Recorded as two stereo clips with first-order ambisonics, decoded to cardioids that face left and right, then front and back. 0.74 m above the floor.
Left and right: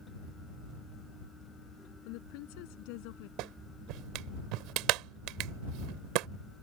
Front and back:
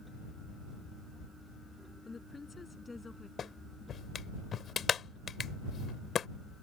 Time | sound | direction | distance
2.0 | a woman speaking | 80° left | ?
3.4 | a clap | 65° right | ?